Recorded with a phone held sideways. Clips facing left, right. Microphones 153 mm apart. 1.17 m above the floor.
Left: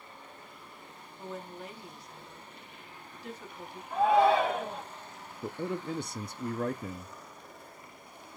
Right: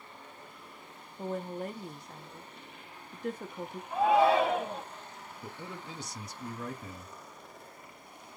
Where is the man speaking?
55° left (ahead or behind), 0.6 m.